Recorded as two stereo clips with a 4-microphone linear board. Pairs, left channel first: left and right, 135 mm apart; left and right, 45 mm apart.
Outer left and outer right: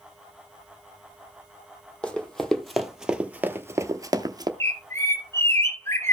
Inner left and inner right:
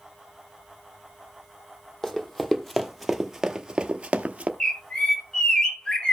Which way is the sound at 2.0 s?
5° left (ahead or behind).